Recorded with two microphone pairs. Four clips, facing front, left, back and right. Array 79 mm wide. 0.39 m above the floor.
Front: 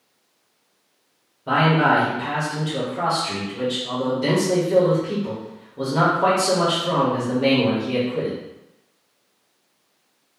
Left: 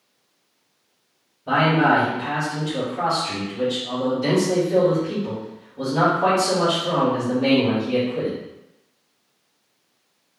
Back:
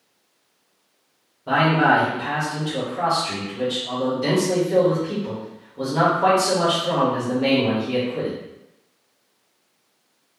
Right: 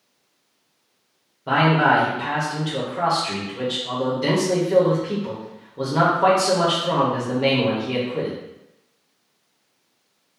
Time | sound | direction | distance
1.5 | a man speaking | 75° right | 1.4 m